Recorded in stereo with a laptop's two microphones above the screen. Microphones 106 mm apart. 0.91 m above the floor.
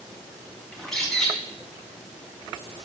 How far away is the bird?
About 1.3 m.